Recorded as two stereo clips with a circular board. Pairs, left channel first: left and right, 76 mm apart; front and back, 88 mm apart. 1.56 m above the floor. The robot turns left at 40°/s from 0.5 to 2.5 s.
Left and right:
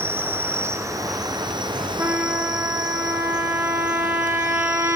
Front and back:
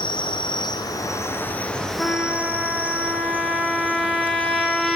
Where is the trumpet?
65° right, 1.0 m; by 5.0 s 85° right, 1.0 m.